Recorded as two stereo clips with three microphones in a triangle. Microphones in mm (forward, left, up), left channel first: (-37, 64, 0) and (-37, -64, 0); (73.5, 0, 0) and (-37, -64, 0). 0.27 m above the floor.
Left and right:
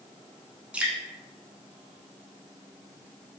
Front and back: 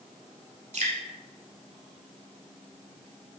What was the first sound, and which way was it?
Dripping, 170° right.